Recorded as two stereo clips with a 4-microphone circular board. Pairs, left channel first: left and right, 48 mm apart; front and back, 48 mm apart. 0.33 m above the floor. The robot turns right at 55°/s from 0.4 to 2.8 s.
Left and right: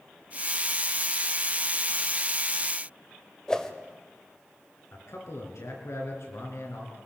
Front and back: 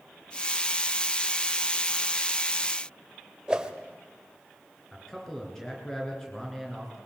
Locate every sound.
3.5 s a whoosh: 145° left, 1.4 m
4.9 s a man speaking: 80° left, 5 m